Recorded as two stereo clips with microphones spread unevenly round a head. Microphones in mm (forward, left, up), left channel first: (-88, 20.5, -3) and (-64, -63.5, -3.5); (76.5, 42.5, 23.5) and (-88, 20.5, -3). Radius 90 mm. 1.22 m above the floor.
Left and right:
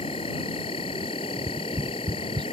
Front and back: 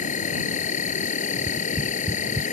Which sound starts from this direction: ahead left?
An insect, at 0.0 s.